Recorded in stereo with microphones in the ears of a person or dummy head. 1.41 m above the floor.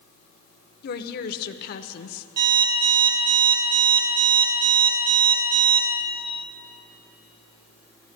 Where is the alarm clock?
50° right (ahead or behind), 2.5 m.